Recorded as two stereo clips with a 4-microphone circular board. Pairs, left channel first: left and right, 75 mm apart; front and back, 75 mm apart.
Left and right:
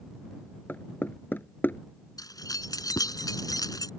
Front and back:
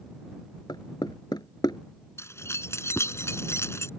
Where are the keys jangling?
55° left.